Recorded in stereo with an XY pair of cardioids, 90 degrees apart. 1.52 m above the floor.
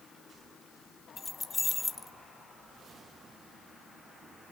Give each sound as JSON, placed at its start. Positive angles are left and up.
{"t": 1.2, "sound": "keys jangling", "azimuth_deg": 40, "distance_m": 1.1}